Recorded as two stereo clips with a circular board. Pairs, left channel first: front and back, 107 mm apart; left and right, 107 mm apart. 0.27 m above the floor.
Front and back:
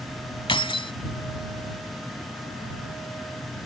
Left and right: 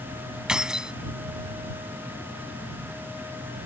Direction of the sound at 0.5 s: 10° right.